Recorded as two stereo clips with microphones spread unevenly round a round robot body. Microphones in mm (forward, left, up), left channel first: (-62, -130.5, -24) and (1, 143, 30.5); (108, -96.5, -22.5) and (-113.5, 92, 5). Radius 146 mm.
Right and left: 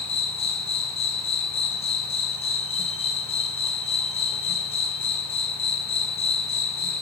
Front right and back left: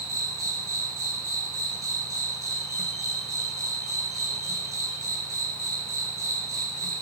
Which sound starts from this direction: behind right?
An insect, at 0.0 s.